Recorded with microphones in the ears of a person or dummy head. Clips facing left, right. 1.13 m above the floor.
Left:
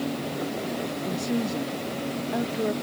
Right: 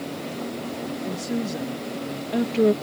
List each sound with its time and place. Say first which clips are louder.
1.1 s a woman speaking: left 1 dB; 5° right (ahead or behind); by 2.7 s 55° right (ahead or behind)